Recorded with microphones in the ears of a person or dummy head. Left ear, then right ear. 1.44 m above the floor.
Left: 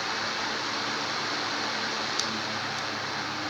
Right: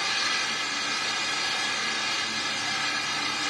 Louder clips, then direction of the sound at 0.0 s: Right 4 dB; 75° right (ahead or behind).